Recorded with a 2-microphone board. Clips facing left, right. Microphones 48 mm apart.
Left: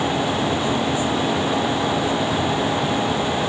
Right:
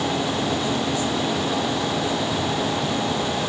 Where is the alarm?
No alarm in this recording.